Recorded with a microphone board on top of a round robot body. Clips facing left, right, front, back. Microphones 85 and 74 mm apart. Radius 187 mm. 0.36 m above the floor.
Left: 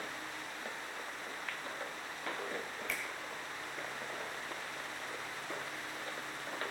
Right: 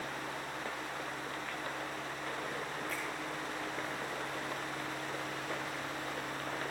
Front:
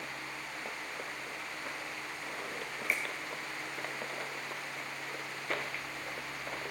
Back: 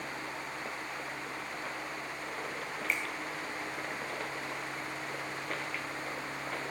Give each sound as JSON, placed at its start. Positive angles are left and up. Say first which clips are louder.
{"t": 2.9, "sound": "a finger snap", "louder": "right 2 dB, even", "azimuth_deg": 85, "distance_m": 4.0}